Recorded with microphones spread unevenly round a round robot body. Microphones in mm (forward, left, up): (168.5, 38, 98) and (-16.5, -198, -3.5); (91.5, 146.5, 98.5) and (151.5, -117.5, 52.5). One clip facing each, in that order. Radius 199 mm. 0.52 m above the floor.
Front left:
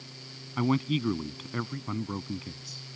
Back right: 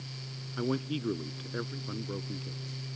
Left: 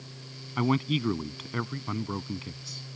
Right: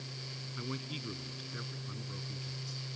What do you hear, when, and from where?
0.6 s a man speaking: 100° left